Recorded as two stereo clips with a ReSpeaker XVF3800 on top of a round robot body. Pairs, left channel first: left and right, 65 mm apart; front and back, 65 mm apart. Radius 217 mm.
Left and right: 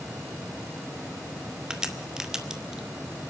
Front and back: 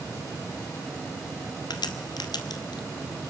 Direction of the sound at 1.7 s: 10° right.